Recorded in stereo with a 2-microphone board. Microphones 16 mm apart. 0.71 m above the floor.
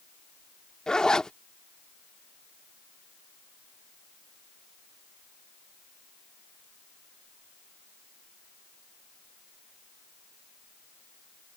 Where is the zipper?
45° left (ahead or behind).